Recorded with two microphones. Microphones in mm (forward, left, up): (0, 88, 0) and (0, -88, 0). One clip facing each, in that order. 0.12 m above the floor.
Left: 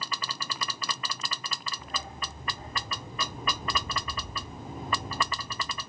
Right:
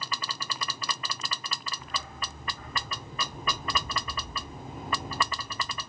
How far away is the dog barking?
About 3.5 m.